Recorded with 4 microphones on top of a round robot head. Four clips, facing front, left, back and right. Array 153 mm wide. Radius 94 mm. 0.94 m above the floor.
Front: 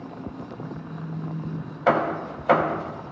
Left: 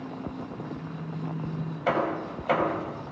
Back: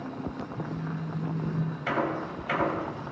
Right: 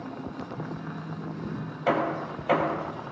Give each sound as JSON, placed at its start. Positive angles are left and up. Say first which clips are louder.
{"t": 0.6, "sound": "a phone buzzing", "louder": "right 1 dB, back 1 dB", "azimuth_deg": -160, "distance_m": 9.0}
{"t": 1.9, "sound": "hammering", "louder": "right 1 dB, front 9 dB", "azimuth_deg": -5, "distance_m": 3.5}